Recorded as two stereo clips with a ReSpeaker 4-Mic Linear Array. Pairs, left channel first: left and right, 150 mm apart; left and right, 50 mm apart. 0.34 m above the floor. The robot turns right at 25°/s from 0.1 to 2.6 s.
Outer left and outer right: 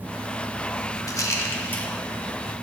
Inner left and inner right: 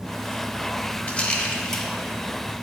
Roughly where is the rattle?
Left.